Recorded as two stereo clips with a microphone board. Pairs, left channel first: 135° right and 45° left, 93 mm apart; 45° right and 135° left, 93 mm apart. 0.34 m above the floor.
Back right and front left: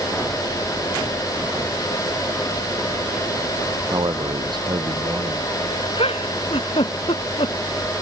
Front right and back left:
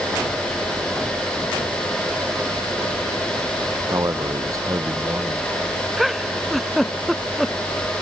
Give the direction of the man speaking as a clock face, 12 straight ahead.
9 o'clock.